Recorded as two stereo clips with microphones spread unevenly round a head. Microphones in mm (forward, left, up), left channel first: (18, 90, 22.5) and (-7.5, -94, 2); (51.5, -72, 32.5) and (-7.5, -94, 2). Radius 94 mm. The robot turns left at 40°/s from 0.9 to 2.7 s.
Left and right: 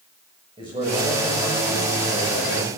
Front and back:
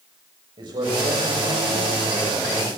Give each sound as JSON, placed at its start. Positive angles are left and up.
{"t": 0.6, "sound": "a man speaking", "azimuth_deg": -165, "distance_m": 8.0}